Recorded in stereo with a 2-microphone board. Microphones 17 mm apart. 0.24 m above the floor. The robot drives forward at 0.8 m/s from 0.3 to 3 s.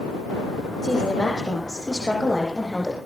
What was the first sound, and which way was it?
A woman speaking, 40° left (ahead or behind).